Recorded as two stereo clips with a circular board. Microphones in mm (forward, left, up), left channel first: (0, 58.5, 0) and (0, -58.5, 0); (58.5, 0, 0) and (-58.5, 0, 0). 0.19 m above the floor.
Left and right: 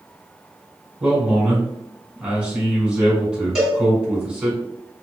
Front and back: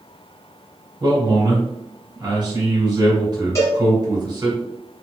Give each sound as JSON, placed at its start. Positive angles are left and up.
{"t": 1.0, "sound": "a man speaking", "azimuth_deg": -165, "distance_m": 1.5}
{"t": 3.5, "sound": "a cowbell", "azimuth_deg": -10, "distance_m": 1.3}